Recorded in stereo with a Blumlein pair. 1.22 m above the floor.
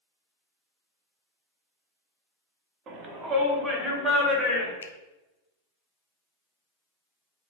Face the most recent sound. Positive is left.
turn(degrees=70)